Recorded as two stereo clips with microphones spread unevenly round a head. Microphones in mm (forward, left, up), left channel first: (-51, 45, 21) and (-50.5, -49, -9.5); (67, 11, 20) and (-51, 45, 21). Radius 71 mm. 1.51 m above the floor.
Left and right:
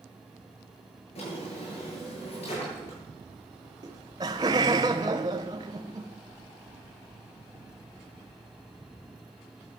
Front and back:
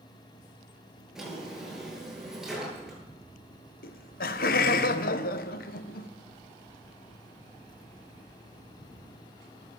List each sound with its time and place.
1.1 s a drawer: 80° left, 8 m
3.8 s laughter: 30° right, 1.1 m